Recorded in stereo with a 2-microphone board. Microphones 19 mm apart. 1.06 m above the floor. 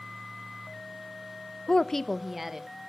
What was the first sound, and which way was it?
A woman speaking, 35° left (ahead or behind).